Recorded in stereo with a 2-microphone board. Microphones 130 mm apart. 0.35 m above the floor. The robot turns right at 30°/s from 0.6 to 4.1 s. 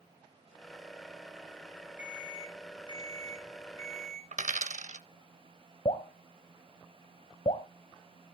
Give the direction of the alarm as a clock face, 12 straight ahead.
6 o'clock.